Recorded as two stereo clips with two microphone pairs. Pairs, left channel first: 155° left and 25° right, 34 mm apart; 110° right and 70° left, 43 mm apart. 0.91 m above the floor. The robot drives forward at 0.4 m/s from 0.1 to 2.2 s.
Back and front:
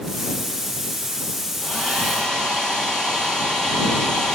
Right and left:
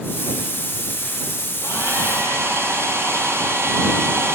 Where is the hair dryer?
80° left, 10 m; by 4.3 s 85° left, 10 m.